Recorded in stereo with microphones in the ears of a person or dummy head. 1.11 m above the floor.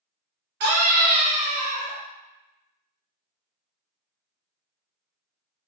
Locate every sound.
0.6 s a scream: 50° right (ahead or behind), 0.8 m; by 2.0 s 15° right (ahead or behind), 0.8 m